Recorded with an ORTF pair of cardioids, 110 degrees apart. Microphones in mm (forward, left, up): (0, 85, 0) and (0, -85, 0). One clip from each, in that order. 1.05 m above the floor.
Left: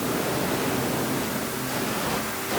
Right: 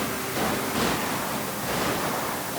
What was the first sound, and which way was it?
Only background noise.